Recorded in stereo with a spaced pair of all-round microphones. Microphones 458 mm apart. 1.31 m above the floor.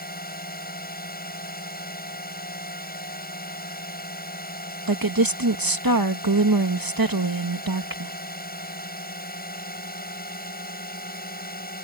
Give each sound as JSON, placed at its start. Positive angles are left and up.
{"t": 0.0, "sound": "a drone", "side_deg": 20}
{"t": 4.9, "sound": "a woman speaking", "side_deg": -50}